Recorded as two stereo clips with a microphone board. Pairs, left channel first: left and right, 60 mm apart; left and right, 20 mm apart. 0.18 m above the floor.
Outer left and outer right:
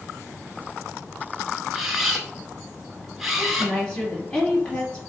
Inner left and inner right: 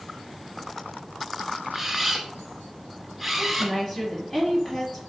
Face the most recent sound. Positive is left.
turn(degrees=20)  # may be behind; listen again after turning